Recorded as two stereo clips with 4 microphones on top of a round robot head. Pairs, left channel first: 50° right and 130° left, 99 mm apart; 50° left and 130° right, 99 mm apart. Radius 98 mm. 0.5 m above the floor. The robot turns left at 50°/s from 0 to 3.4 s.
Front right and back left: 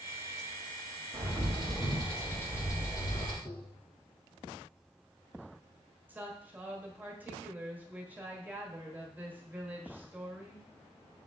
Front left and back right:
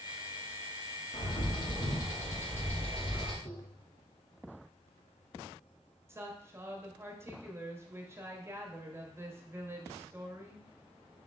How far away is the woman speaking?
About 1.3 m.